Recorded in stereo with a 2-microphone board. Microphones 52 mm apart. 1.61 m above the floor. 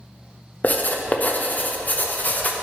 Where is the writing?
30° left (ahead or behind), 0.7 m.